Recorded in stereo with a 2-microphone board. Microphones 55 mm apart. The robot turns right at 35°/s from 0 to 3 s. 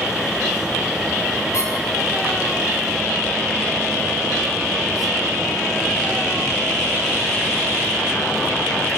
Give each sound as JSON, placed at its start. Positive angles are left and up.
{"t": 1.5, "sound": "a squeak", "side_deg": 60, "distance_m": 7.0}